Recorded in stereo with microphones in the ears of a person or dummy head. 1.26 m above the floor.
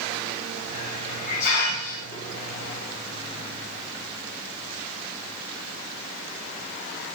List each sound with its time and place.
0.6 s a hiss: 60° left (ahead or behind), 4 m